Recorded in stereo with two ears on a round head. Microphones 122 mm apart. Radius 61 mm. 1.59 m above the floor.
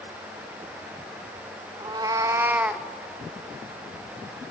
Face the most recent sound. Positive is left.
turn(degrees=-5)  # may be behind; listen again after turning